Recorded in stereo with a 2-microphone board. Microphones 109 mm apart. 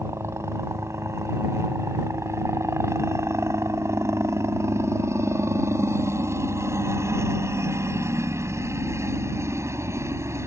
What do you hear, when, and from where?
0.0 s a helicopter: 25° right (ahead or behind)